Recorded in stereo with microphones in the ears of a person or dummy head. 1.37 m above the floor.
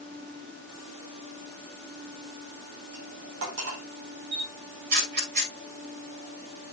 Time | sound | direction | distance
2.9 | cutlery clinking | 80° right | 2.5 m
4.3 | a camera shutter | 55° right (ahead or behind) | 4.5 m